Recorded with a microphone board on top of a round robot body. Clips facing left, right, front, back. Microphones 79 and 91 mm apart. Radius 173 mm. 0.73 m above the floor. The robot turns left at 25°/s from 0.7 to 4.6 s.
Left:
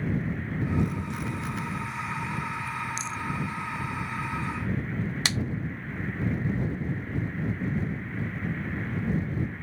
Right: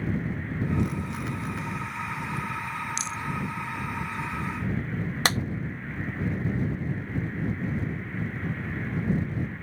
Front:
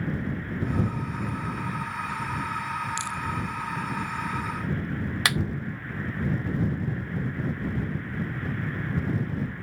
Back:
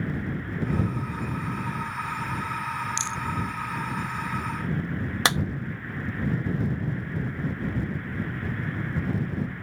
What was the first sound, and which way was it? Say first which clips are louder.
A rattle: even, even; 115° right.